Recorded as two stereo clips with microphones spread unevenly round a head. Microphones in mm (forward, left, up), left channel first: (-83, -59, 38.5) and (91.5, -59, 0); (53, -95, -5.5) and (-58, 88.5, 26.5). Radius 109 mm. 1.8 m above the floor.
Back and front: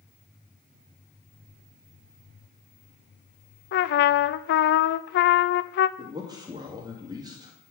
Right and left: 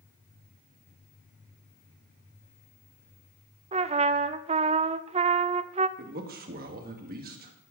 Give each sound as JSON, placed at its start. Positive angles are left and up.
{"t": 3.7, "sound": "a trumpet", "azimuth_deg": 180, "distance_m": 0.6}
{"t": 6.0, "sound": "a man speaking", "azimuth_deg": 75, "distance_m": 2.5}